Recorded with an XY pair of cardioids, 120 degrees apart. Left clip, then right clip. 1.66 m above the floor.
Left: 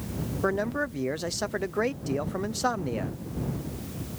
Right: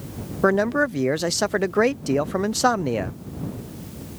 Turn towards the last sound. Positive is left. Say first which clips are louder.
# right 9 dB
turn(degrees=-45)